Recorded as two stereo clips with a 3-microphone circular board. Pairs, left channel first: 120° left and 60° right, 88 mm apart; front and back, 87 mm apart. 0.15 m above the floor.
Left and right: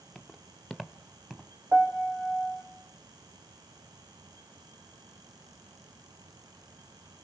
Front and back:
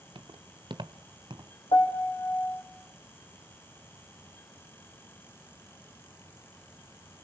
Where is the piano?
10° left, 2.5 m.